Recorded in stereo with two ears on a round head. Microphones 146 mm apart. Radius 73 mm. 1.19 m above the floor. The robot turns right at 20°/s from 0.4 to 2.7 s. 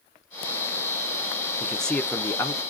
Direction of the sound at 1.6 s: Centre (ahead or behind).